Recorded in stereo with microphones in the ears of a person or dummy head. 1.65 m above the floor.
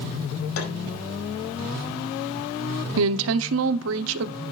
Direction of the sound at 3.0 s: 80° right.